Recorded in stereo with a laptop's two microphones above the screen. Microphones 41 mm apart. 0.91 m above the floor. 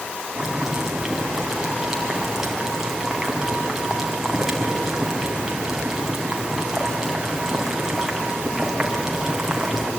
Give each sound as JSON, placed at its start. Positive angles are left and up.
{"t": 0.4, "sound": "boiling", "side_deg": -10, "distance_m": 3.0}